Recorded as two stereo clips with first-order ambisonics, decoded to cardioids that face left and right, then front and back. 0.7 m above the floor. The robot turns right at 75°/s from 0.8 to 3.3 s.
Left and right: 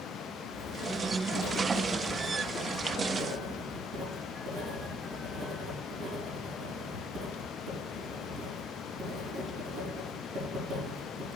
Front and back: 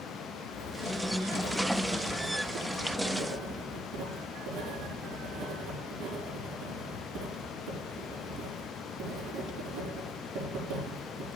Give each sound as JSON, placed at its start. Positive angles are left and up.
{"t": 0.5, "sound": "writing", "azimuth_deg": 35, "distance_m": 4.5}